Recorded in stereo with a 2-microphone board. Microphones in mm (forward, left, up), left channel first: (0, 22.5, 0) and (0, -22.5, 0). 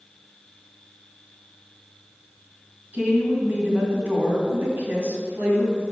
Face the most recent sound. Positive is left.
turn(degrees=-45)  # may be behind; listen again after turning